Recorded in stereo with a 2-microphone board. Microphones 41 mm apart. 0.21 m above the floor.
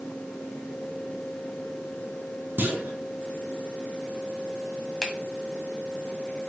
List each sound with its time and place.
2.6 s a clunk: 60° right (ahead or behind), 1.4 m
5.0 s a finger snap: 10° left (ahead or behind), 1.5 m